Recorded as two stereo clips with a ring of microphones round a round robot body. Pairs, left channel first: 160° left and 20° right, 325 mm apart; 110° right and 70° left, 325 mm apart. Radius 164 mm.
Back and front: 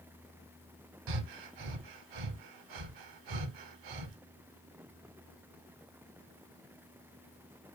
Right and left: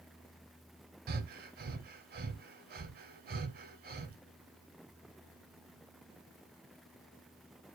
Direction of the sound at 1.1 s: 5° left.